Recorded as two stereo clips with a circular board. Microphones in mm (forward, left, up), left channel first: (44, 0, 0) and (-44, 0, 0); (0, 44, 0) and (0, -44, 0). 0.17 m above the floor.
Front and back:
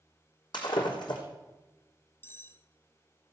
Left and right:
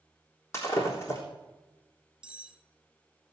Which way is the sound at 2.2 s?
25° right.